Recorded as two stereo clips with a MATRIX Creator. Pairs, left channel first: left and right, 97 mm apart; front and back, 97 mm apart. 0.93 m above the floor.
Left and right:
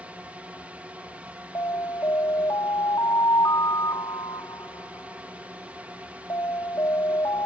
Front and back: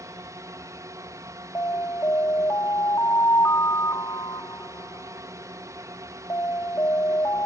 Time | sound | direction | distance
0.0 | a drone | 155° right | ?
1.6 | an alarm | 50° left | ?